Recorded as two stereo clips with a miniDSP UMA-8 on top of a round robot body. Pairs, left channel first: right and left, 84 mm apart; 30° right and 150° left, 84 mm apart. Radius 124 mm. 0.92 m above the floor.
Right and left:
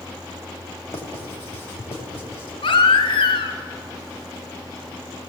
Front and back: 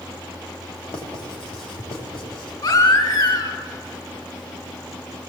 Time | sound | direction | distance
0.9 | writing | 30° right | 3.5 m
2.6 | a baby crying | 65° right | 3 m